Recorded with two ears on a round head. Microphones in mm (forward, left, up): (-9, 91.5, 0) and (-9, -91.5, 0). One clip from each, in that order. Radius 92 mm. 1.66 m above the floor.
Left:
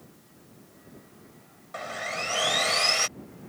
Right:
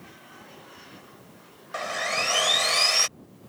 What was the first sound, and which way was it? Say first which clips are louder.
Sawing: right 5 dB; 30° right (ahead or behind).